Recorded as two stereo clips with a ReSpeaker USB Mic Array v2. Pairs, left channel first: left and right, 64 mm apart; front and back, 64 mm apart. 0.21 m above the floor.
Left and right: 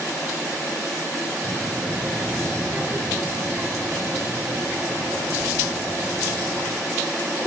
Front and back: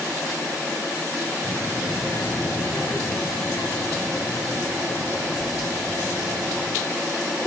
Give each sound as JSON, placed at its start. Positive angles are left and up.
{"t": 1.4, "sound": "a child speaking", "azimuth_deg": -40, "distance_m": 3.0}